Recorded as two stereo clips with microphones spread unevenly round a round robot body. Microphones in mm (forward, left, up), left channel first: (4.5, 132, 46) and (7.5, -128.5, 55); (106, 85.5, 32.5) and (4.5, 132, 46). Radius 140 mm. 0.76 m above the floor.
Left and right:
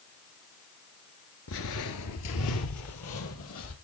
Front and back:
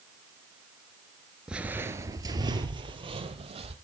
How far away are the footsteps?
About 0.9 m.